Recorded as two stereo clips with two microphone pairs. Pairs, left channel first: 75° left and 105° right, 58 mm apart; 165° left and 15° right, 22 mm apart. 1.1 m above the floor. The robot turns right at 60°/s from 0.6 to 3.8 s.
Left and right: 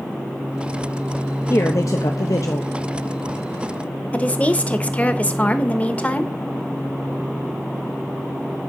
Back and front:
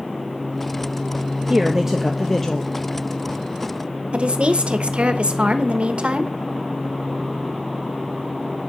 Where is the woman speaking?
10° left, 1.1 m.